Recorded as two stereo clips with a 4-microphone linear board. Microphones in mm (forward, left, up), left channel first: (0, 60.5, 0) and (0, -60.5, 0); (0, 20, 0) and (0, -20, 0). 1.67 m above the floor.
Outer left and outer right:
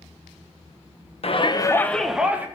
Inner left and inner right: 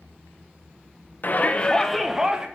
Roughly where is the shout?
Left.